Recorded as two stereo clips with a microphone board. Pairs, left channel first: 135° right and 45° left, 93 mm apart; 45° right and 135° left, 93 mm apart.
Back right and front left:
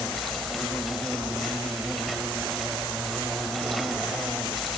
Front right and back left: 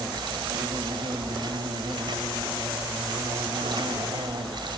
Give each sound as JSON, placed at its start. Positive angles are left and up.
{"t": 0.0, "sound": "an insect", "azimuth_deg": 135, "distance_m": 2.0}